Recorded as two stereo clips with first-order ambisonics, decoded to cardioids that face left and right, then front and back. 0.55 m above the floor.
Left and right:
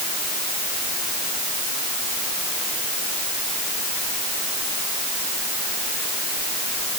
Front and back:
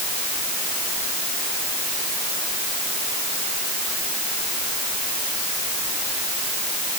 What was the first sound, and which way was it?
Only background noise.